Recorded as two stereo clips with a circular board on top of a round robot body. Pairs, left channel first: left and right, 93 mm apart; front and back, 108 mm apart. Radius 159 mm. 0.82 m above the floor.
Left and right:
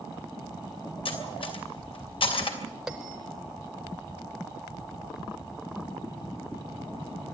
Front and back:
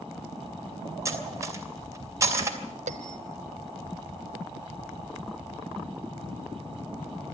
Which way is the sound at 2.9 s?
175° right.